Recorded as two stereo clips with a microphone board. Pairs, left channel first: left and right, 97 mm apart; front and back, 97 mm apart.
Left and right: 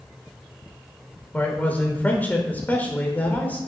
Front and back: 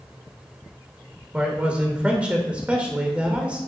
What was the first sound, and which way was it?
A man speaking, 125° left.